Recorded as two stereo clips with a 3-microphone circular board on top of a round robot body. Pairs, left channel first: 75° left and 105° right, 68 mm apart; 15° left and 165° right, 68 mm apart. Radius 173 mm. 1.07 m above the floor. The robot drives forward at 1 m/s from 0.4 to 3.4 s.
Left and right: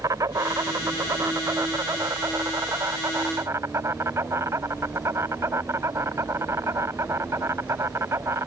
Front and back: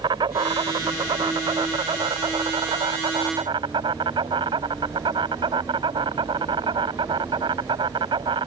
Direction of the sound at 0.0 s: 150° right.